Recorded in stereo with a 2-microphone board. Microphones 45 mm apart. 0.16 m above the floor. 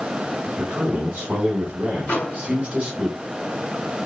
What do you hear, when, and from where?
0.6 s a man speaking: 25° right (ahead or behind), 1.2 m
2.1 s a microwave: 30° left (ahead or behind), 1.6 m